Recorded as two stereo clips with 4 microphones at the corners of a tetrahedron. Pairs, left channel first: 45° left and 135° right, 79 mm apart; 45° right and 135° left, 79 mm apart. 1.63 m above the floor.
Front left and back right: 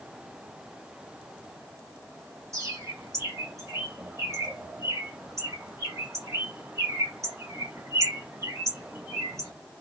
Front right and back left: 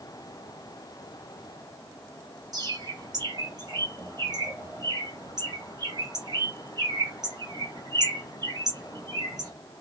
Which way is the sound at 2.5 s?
170° left.